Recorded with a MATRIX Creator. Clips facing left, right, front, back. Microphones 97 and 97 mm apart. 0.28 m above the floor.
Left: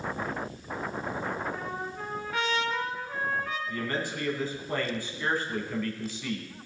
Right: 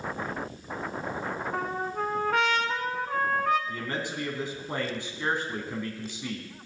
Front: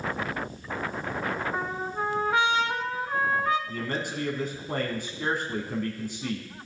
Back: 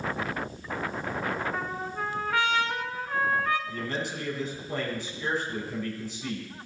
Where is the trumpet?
65° right, 0.9 m.